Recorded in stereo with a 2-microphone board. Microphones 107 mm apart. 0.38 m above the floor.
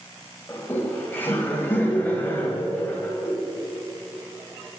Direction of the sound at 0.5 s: 15° left (ahead or behind).